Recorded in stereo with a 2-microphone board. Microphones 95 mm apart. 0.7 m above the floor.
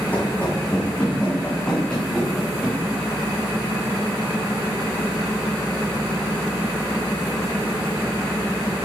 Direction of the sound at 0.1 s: 20° left (ahead or behind).